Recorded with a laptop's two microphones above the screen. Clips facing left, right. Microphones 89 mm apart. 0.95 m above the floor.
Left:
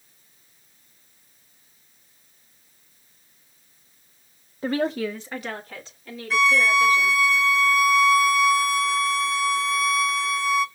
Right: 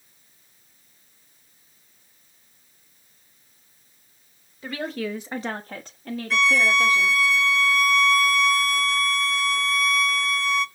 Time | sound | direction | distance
4.6 | a woman speaking | 40° left (ahead or behind) | 0.8 m
6.3 | a violin | centre (ahead or behind) | 0.6 m